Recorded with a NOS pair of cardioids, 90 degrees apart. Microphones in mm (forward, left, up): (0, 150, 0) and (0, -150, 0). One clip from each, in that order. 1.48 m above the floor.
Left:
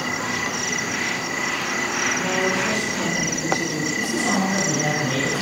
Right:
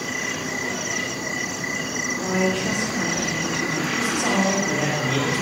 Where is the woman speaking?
35° right, 0.9 m; by 3.9 s 20° left, 1.0 m.